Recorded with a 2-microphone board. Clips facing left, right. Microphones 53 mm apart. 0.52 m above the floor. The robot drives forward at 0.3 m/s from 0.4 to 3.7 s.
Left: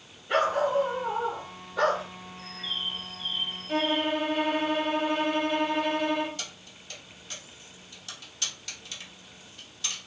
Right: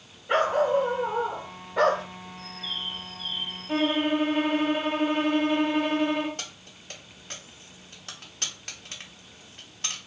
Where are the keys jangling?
40° right (ahead or behind), 0.7 m.